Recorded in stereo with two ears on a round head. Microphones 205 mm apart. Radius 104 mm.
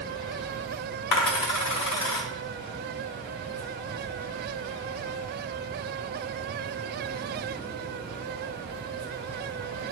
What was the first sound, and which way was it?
A dropped coin, 85° left.